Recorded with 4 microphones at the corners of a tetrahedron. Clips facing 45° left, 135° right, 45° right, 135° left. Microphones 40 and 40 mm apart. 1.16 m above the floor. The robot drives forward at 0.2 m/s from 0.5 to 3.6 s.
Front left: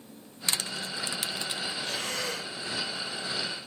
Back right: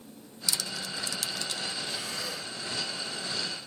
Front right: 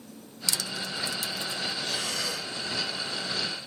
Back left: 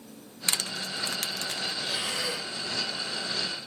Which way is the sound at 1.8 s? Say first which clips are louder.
Front left 3 dB, back left 1 dB; 65° left.